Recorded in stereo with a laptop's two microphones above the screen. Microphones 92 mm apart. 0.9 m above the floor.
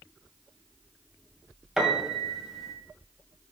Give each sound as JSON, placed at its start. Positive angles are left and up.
{"t": 1.8, "sound": "a piano", "side_deg": -5, "distance_m": 2.0}